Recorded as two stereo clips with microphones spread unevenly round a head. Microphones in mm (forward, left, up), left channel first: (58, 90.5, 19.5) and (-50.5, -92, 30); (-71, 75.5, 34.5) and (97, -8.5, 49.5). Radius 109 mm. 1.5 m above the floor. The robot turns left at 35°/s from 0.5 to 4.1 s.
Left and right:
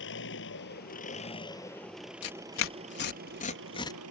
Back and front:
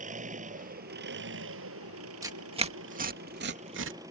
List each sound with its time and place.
0.0 s an engine running: 25° left; by 4.1 s 105° right
2.2 s tearing paper: 45° left; by 4.0 s 15° right